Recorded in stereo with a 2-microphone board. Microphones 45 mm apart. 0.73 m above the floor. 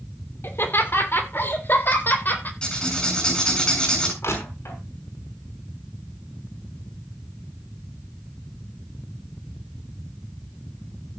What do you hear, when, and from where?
0.4 s laughter: 60° left (ahead or behind), 2.5 m; by 2.5 s 50° left (ahead or behind), 3.5 m
2.6 s writing: 20° left (ahead or behind), 7.5 m
4.2 s crushing: 75° left (ahead or behind), 6 m